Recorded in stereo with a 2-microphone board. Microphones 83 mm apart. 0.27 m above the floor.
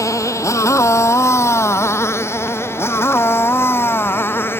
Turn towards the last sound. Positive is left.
turn(degrees=25)  # may be behind; listen again after turning